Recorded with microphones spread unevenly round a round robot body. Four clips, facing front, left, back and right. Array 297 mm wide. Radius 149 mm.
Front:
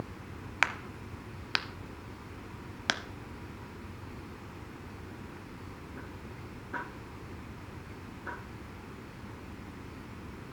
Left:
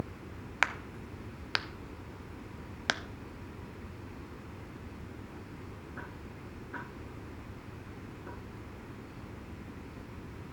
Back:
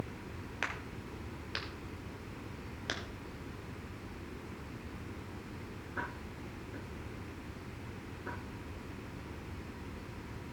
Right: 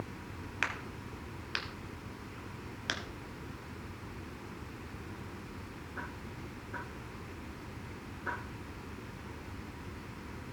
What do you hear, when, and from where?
0.6 s a crack: 35° left, 0.7 m